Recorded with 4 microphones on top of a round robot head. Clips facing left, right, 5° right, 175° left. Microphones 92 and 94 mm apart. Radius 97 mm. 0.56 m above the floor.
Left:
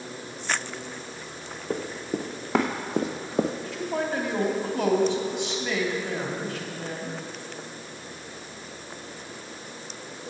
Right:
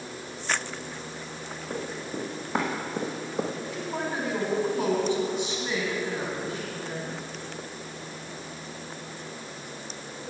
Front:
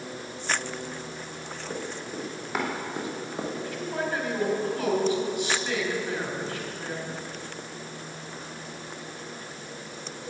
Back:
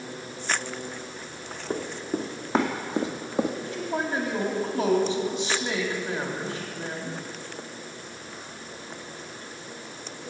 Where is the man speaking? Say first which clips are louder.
Left 3 dB, back 1 dB; 105° left, 3.5 m.